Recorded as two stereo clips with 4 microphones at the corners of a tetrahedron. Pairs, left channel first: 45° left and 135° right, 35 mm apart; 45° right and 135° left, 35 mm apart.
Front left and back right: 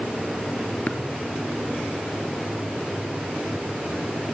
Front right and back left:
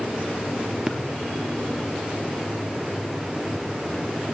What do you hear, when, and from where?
0.9 s tapping: 55° left, 1.3 m